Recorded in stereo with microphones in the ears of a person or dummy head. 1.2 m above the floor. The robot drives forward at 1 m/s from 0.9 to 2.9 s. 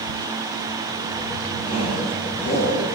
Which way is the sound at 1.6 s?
40° left (ahead or behind).